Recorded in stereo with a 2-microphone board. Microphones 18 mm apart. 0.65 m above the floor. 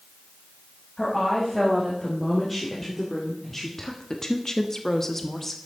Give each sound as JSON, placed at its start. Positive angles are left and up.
{"t": 1.0, "sound": "a woman speaking", "side_deg": 10, "distance_m": 4.5}